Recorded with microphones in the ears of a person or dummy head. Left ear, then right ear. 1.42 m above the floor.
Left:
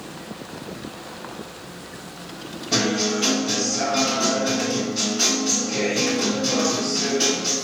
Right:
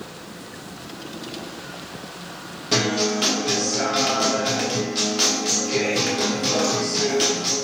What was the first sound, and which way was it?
A guitar, 35° right (ahead or behind).